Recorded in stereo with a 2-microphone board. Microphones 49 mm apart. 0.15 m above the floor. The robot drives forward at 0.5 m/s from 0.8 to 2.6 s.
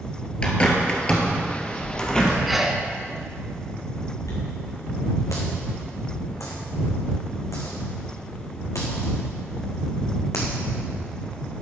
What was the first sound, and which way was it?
A bird, 20° left (ahead or behind).